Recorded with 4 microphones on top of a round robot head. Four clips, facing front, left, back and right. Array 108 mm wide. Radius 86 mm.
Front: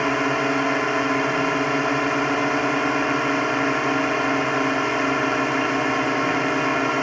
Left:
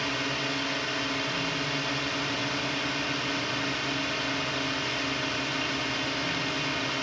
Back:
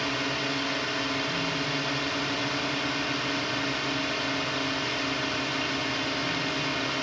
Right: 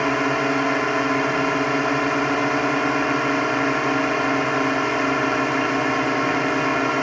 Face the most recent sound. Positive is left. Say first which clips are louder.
# right 11 dB, front 9 dB
turn(degrees=-50)